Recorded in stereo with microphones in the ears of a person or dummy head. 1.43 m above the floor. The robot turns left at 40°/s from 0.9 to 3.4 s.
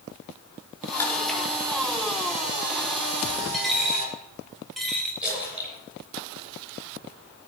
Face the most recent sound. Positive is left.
turn(degrees=-5)  # may be behind; listen again after turning